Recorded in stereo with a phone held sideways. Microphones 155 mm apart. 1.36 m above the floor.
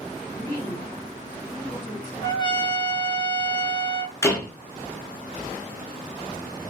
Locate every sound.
0.3 s a woman speaking: 25° left (ahead or behind), 3.5 m
2.2 s a trumpet: 30° left (ahead or behind), 1.2 m
4.2 s a door slam: 20° left (ahead or behind), 1.5 m